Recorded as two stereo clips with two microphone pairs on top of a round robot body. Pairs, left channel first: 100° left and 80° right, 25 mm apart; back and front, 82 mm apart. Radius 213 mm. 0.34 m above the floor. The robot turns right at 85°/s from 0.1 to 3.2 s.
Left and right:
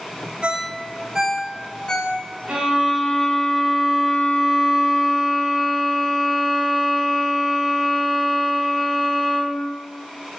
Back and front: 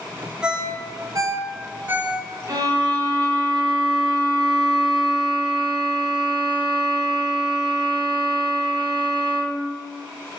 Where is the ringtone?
70° right, 0.7 m; by 2.2 s 85° left, 0.7 m.